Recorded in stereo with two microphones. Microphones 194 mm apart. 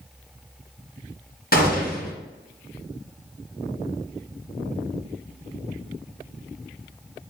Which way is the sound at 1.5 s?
50° left (ahead or behind).